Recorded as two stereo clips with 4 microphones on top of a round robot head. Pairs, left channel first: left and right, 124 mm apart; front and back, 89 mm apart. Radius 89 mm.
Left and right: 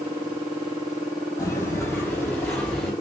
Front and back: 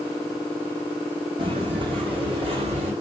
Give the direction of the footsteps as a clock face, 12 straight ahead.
7 o'clock.